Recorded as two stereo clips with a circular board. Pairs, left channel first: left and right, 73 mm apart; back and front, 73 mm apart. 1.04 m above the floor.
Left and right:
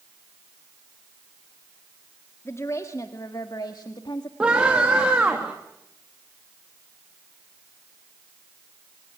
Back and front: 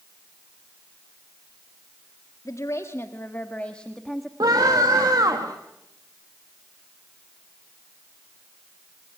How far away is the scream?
About 2 m.